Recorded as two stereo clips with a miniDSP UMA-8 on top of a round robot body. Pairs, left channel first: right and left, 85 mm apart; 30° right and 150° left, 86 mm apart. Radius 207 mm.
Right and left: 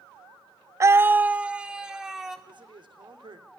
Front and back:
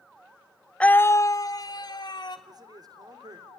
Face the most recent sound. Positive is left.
turn(degrees=110)